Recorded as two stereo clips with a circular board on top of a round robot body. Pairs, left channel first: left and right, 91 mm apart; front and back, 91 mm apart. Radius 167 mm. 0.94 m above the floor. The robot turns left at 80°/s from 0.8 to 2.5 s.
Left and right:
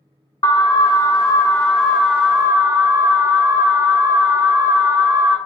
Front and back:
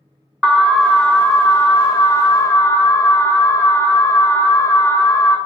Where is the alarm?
90° left, 0.9 m; by 5.4 s 45° right, 0.9 m.